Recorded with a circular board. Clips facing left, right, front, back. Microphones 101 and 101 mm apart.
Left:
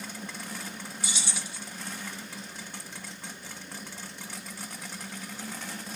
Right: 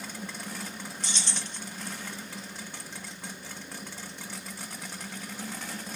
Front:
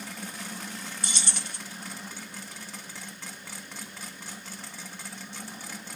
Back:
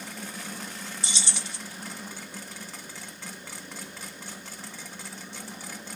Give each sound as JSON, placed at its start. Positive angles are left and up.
{"t": 1.0, "sound": "keys jangling", "azimuth_deg": 10, "distance_m": 0.5}